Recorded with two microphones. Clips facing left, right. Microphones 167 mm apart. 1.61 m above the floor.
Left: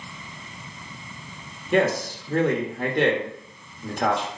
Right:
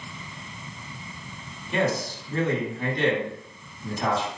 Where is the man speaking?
65° left (ahead or behind), 1.1 m.